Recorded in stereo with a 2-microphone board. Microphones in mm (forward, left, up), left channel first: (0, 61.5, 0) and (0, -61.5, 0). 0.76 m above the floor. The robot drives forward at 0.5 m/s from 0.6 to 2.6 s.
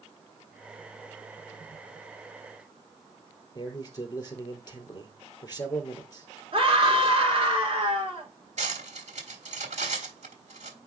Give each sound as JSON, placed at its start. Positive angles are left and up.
{"t": 3.5, "sound": "a man speaking", "side_deg": 30, "distance_m": 2.5}
{"t": 6.5, "sound": "a scream", "side_deg": -45, "distance_m": 2.5}
{"t": 8.6, "sound": "cutlery clinking", "side_deg": -70, "distance_m": 1.6}